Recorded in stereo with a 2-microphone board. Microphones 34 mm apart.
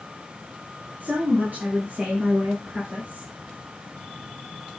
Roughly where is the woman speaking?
Right.